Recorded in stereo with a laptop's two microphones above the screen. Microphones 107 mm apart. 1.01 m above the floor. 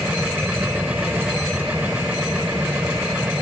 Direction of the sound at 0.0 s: 15° right (ahead or behind).